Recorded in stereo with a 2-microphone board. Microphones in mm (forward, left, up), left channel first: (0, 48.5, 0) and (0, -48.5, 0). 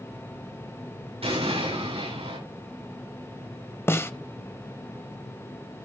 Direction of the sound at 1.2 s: 80° right.